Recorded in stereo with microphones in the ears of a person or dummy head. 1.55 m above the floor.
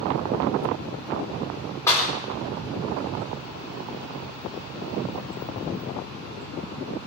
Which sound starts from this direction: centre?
A clap, at 1.9 s.